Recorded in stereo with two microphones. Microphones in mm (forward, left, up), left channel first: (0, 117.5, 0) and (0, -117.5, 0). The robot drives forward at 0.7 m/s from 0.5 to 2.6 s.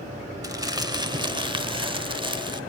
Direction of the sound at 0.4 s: 15° right (ahead or behind).